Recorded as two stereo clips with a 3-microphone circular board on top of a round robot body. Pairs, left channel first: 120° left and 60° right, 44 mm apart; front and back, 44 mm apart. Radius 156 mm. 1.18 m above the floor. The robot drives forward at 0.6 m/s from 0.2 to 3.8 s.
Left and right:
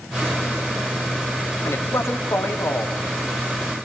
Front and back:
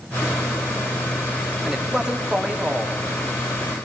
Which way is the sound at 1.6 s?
105° left.